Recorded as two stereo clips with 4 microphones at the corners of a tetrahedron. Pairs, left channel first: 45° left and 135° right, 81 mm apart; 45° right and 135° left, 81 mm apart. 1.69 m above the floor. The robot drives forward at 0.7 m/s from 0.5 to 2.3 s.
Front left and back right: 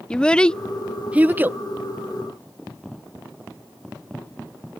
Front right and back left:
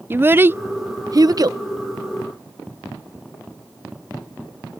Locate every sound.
0.1 s a child speaking: 110° left; by 1.6 s 165° left